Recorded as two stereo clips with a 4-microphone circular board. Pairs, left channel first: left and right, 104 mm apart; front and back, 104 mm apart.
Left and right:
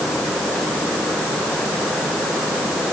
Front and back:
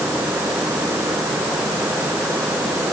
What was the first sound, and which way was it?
Only background noise.